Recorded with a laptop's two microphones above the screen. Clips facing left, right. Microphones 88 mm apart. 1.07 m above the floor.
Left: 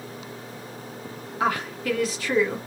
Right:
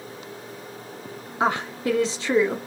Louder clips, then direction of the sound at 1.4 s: Right 2 dB; 25° right (ahead or behind).